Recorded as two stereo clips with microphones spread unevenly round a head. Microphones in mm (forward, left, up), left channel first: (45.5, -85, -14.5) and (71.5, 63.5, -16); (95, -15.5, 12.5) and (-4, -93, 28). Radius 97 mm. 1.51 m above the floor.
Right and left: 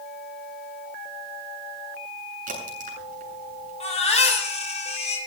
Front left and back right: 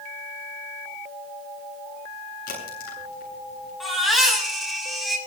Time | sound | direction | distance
2.5 | a crack | 45° left | 8 m
3.8 | a baby crying | 50° right | 8.5 m